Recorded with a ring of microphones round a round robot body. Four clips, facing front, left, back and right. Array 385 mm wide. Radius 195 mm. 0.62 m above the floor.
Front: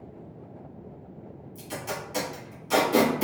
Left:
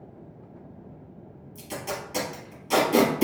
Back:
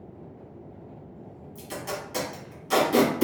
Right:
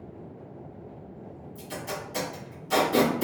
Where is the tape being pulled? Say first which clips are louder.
Left 2 dB, back 1 dB; 120° left, 1.4 m.